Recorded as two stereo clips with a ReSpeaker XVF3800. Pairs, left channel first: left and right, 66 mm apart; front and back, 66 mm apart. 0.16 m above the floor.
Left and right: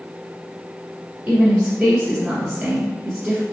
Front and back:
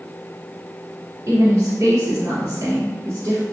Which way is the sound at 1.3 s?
150° right.